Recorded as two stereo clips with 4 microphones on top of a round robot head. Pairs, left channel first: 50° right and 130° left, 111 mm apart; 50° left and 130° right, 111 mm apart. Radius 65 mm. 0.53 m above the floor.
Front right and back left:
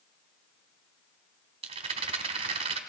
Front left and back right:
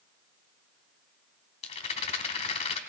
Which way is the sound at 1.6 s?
85° left.